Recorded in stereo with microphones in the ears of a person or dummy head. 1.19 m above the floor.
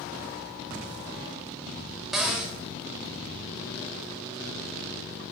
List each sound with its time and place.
2.1 s a cupboard door: 5° right (ahead or behind), 0.6 m